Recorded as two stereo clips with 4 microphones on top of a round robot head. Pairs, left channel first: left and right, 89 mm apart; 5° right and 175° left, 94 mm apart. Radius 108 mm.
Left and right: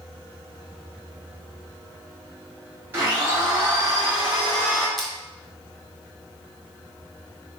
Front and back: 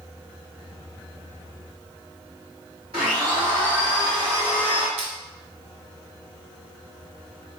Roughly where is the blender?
Behind right.